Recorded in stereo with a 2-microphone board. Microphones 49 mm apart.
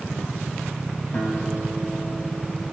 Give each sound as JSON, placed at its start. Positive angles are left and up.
{"t": 1.1, "sound": "a guitar", "side_deg": 45, "distance_m": 2.5}